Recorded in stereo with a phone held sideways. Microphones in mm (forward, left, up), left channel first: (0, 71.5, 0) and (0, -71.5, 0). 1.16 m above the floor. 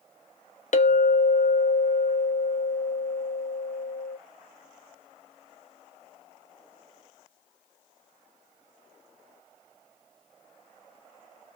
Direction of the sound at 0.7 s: 55° left (ahead or behind).